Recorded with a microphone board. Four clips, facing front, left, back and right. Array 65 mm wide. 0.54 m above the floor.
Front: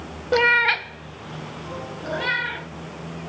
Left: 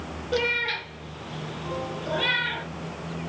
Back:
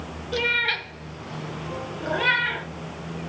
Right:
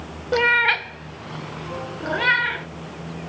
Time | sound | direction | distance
0.3 | a cat meowing | 30° right | 0.8 m